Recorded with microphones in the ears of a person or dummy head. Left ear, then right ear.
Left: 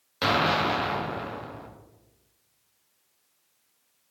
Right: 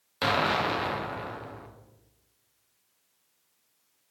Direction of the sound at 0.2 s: 5° right (ahead or behind).